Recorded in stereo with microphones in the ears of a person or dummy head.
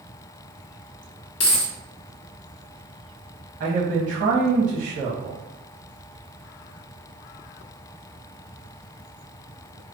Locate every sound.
1.4 s a dropped coin: 30° left (ahead or behind), 0.6 m
3.6 s a man speaking: 55° right (ahead or behind), 1.0 m